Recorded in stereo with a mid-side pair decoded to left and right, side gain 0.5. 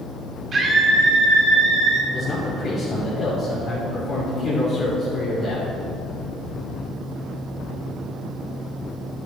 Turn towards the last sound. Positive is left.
turn(degrees=50)